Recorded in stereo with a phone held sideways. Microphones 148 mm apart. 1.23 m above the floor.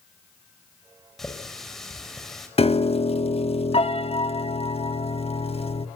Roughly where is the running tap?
Centre.